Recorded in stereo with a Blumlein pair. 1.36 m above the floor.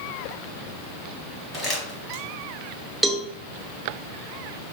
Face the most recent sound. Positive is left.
turn(degrees=-5)